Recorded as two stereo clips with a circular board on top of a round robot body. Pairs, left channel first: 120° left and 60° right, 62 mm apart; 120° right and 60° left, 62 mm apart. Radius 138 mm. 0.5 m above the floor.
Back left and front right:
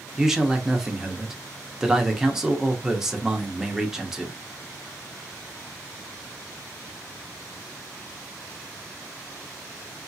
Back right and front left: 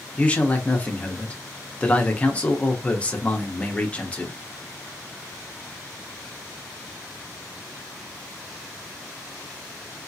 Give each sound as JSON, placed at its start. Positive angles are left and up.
{"t": 0.2, "sound": "a man speaking", "azimuth_deg": -130, "distance_m": 1.0}